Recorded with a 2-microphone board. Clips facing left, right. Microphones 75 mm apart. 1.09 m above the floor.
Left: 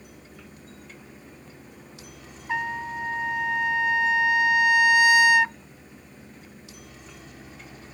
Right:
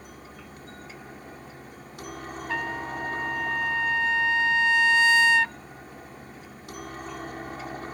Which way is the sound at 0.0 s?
55° right (ahead or behind).